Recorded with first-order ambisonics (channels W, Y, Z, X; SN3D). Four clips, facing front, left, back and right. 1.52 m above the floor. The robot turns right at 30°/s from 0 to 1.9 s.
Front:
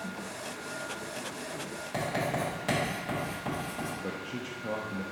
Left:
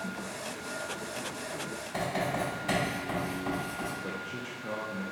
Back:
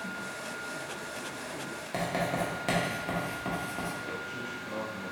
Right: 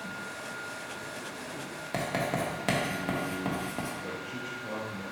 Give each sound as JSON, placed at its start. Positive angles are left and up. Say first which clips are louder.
{"t": 1.9, "sound": "writing", "louder": "right 1 dB, even", "azimuth_deg": -105, "distance_m": 1.2}
{"t": 4.0, "sound": "a man speaking", "louder": "even, even", "azimuth_deg": 5, "distance_m": 0.5}